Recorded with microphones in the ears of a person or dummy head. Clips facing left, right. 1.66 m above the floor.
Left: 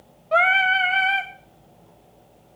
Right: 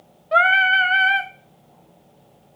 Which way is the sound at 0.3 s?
10° right (ahead or behind).